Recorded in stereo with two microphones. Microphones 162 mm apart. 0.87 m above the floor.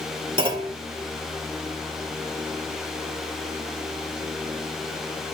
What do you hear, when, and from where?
0.4 s a clunk: 35° right (ahead or behind), 2 m